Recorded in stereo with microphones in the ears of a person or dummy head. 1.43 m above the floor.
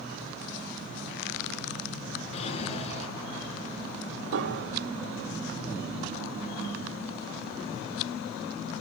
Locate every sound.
2.3 s a drawer: 35° left (ahead or behind), 6 m
4.3 s a piano: 60° right (ahead or behind), 1.5 m